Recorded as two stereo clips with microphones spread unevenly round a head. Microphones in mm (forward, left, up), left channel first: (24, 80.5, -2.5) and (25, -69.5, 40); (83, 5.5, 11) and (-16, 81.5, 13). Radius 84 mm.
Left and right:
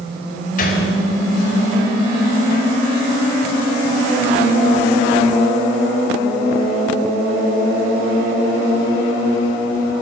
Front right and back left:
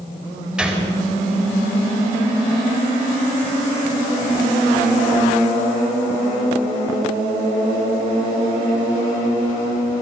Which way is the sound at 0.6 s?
60° left.